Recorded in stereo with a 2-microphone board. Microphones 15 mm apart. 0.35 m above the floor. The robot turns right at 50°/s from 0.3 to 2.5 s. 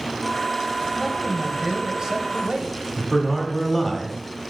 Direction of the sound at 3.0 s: Centre (ahead or behind).